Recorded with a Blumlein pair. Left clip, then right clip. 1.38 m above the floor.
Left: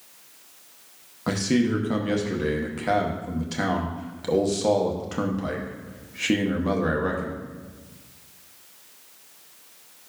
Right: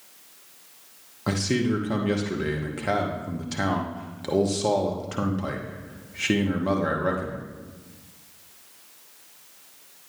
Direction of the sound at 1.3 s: Straight ahead.